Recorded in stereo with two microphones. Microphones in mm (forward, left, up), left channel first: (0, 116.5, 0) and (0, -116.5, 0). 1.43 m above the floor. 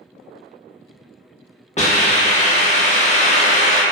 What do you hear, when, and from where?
1.8 s a hiss: 30° left (ahead or behind), 0.7 m